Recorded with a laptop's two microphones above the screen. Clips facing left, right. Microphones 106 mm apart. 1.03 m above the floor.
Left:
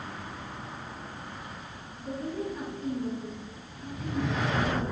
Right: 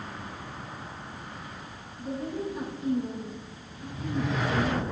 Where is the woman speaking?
15° right (ahead or behind), 1.0 m.